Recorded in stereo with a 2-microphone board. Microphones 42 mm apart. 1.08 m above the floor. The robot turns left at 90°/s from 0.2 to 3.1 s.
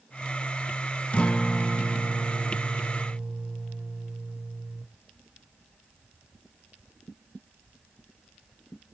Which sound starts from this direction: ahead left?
A guitar, at 1.1 s.